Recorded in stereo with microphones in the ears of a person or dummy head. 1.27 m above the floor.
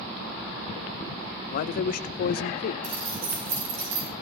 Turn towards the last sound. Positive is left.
turn(degrees=-50)  # may be behind; listen again after turning